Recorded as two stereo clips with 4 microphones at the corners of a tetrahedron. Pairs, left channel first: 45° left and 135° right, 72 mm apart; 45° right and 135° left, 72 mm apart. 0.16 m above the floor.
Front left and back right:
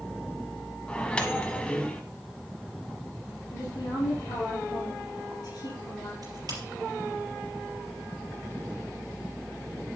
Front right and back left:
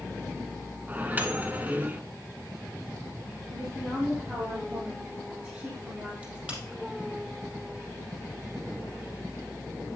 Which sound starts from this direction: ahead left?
A woman speaking, at 3.5 s.